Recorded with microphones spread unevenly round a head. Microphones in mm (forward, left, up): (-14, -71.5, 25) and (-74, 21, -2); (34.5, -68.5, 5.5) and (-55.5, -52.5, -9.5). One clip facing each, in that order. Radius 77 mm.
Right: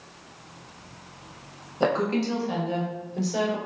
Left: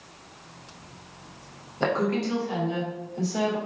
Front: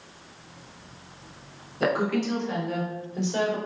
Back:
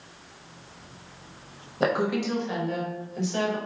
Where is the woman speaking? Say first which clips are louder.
Right 1 dB, even; 125° right, 1.1 m; by 3.6 s 65° right, 1.1 m.